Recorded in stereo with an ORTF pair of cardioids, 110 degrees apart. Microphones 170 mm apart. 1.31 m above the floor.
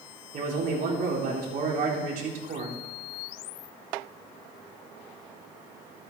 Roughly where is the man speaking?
Ahead right.